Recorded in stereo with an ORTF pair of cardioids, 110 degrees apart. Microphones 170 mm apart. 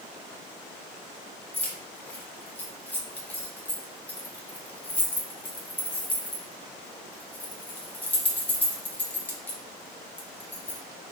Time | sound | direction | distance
1.5 | keys jangling | 10° left | 1.0 m